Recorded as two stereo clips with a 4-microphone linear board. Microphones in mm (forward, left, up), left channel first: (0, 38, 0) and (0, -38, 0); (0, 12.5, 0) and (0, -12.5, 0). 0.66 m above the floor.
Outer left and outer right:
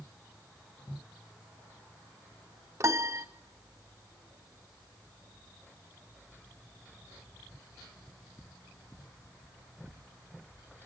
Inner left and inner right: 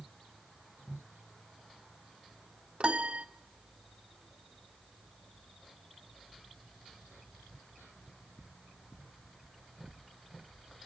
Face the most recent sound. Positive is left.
turn(degrees=-40)  # may be behind; listen again after turning